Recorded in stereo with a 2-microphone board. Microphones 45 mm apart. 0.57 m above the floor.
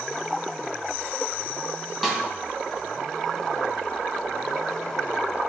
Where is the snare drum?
5° right (ahead or behind), 1.9 m.